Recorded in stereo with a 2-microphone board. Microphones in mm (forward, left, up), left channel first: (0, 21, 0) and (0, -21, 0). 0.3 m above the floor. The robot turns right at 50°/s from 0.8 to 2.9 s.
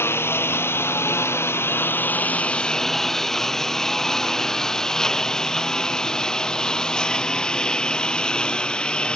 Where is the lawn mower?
70° left (ahead or behind); by 9.2 s 25° left (ahead or behind).